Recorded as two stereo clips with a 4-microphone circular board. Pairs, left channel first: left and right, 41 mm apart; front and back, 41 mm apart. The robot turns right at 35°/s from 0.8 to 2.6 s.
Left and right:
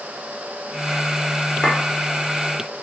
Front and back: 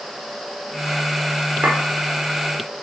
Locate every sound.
1.6 s a clink: 160° left, 1.5 m; by 1.8 s 165° left, 1.5 m